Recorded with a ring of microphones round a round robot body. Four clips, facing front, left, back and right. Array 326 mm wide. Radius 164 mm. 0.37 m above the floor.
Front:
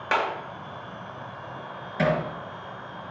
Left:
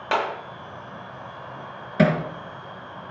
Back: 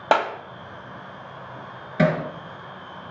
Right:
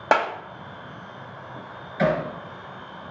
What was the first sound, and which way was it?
A clap, 140° right.